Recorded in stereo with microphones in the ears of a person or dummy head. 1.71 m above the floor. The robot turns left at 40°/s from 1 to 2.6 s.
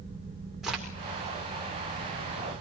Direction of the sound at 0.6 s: Centre (ahead or behind).